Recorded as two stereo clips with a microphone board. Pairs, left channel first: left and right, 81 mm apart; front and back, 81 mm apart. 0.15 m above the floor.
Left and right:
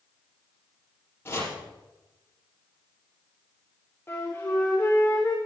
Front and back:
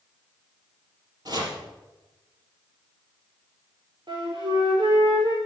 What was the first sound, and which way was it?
Chopping, 150° left.